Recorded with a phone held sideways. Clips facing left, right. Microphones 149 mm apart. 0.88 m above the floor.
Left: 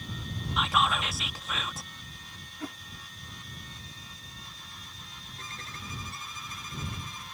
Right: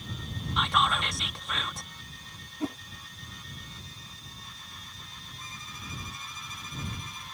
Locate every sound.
0.6 s whispering: centre (ahead or behind)
2.6 s a whoosh: 25° right (ahead or behind)
5.4 s a violin: 80° left